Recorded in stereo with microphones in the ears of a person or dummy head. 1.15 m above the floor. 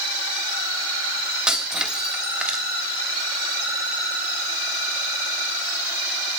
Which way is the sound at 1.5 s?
5° right (ahead or behind).